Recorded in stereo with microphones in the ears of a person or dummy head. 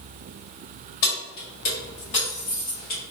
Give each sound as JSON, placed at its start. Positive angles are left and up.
{"t": 1.0, "sound": "keys jangling", "side_deg": 65, "distance_m": 1.8}